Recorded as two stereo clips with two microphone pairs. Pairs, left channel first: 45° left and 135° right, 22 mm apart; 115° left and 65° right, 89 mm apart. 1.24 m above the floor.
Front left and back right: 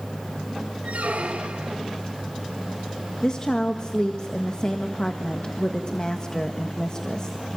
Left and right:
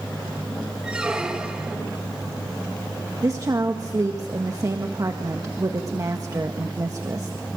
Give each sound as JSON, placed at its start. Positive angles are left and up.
{"t": 0.8, "sound": "a squeak", "azimuth_deg": -145, "distance_m": 2.0}
{"t": 3.2, "sound": "a woman speaking", "azimuth_deg": -15, "distance_m": 1.7}